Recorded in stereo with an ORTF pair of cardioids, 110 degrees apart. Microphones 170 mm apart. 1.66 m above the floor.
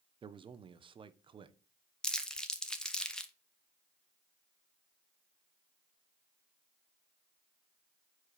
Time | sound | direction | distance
0.2 | a man speaking | 30° right | 0.7 m
2.0 | crumpling | 5° left | 0.9 m